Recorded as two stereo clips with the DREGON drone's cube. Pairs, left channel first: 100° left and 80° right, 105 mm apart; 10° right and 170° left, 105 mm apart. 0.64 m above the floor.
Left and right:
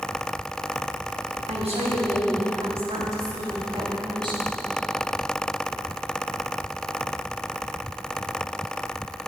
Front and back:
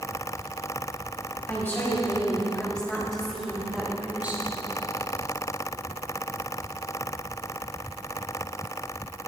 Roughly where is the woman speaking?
Right.